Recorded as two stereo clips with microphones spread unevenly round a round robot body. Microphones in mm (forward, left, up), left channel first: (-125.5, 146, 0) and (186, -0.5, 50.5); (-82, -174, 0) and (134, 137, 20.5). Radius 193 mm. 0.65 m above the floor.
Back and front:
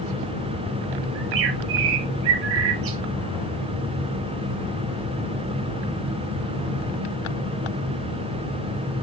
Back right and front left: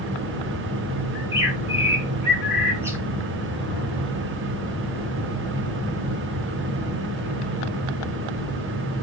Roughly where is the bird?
Ahead right.